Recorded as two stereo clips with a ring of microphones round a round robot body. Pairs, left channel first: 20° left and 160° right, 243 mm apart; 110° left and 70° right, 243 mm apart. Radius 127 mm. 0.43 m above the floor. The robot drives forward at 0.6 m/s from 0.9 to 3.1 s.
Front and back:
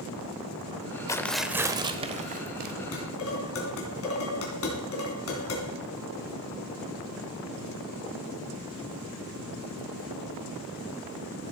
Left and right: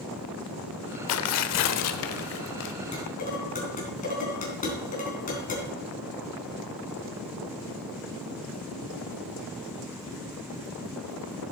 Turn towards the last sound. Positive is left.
turn(degrees=55)